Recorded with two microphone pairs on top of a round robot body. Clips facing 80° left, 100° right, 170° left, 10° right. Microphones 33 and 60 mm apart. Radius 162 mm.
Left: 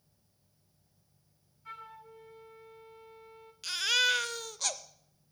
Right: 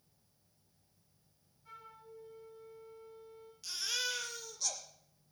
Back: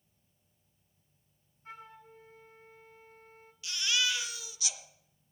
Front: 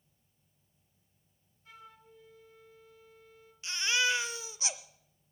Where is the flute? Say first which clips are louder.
Left 6 dB, back 5 dB; 115° left, 0.5 m.